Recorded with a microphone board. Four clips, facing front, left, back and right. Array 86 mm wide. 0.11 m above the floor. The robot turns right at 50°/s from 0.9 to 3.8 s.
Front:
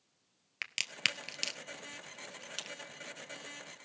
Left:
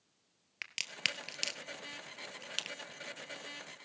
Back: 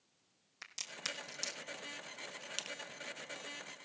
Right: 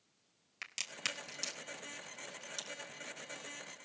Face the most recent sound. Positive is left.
turn(degrees=155)